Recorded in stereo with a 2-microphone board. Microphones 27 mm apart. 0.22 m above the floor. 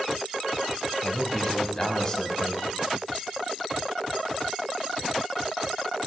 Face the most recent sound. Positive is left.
turn(degrees=25)  # may be behind; listen again after turning